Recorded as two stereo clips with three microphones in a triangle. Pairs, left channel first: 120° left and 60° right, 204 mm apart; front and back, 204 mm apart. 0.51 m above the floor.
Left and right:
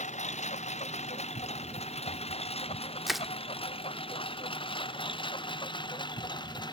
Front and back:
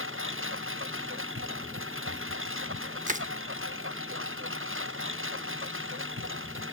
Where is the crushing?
150° right.